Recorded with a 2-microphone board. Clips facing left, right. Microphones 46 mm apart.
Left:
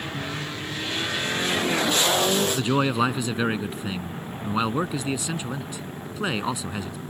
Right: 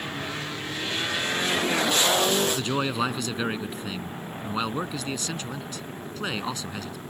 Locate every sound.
2.5 s a man speaking: 15° left (ahead or behind)